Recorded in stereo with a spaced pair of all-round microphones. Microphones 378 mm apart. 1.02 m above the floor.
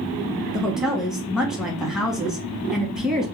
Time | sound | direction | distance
0.5 | a woman speaking | centre (ahead or behind) | 1.0 m